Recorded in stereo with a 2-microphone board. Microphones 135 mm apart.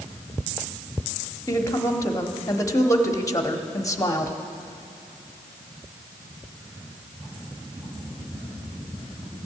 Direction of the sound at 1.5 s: 25° left (ahead or behind).